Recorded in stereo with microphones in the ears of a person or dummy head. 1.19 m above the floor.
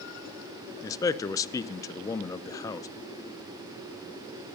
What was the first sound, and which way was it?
A man speaking, 20° left (ahead or behind).